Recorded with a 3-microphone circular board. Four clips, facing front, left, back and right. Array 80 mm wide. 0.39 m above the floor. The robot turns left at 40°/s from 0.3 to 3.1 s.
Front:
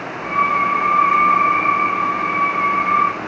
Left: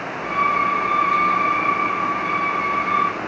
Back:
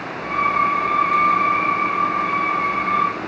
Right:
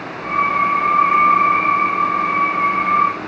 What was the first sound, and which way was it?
Only background noise.